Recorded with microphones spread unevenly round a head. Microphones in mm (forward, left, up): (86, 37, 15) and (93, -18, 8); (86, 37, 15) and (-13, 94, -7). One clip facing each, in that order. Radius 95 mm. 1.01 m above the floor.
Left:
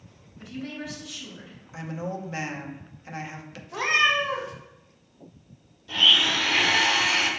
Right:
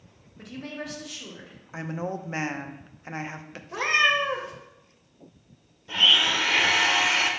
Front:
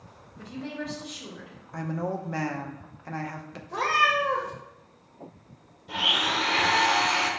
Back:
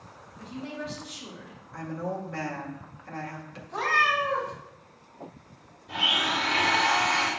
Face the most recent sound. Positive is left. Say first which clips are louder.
# even, even
turn(degrees=-20)